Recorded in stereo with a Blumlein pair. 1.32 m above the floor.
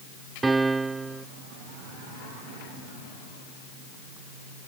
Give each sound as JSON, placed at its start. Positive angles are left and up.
{"t": 0.4, "sound": "a piano", "azimuth_deg": -10}